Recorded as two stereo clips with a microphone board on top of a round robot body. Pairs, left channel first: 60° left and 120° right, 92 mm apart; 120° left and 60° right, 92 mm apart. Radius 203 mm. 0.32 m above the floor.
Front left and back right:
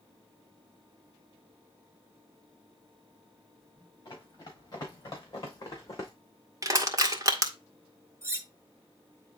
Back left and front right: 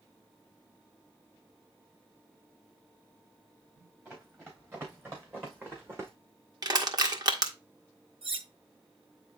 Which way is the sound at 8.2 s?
60° right.